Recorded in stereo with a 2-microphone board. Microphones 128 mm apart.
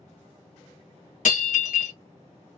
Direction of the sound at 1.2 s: 75° left (ahead or behind).